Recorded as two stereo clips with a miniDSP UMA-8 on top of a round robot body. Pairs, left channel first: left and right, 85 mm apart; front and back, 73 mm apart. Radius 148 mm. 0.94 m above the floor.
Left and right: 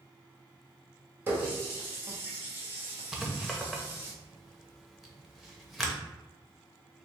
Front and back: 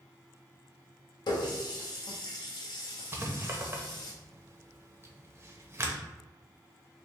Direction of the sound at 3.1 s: 175° right.